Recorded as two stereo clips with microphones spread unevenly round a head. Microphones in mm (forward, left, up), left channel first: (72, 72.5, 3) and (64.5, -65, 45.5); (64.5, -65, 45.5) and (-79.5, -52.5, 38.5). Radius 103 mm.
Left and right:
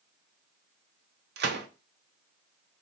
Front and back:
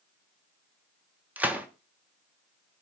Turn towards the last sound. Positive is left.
turn(degrees=-105)